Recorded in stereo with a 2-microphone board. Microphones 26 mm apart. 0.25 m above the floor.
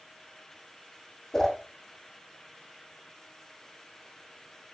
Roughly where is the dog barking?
No dog barking in this recording.